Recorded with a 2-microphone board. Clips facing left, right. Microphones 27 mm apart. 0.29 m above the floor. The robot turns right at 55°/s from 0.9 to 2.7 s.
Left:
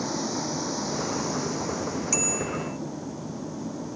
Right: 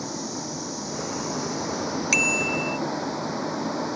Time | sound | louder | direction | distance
0.0 | a vehicle | left 3 dB | 165° left | ?
2.1 | a bicycle bell | right 7 dB | 120° right | ?